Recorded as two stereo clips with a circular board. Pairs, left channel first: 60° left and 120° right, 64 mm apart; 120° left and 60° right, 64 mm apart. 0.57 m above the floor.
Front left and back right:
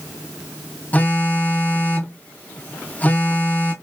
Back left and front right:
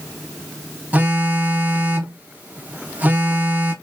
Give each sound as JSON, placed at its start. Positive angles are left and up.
{"t": 0.9, "sound": "a phone buzzing", "azimuth_deg": 0, "distance_m": 1.0}